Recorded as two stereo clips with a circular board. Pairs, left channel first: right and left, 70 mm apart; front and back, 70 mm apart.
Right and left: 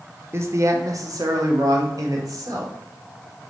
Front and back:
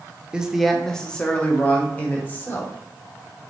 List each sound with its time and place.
0.3 s a man speaking: 110° left, 0.6 m; by 2.7 s 60° left, 1.9 m